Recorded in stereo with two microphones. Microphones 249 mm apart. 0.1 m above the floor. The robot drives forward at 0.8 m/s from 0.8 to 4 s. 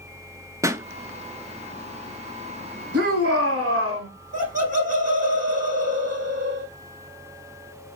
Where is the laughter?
30° right (ahead or behind), 5 m.